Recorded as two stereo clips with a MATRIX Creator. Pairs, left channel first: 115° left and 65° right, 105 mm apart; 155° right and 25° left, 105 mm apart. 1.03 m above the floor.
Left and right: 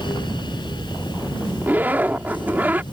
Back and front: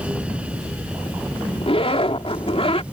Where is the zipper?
140° right.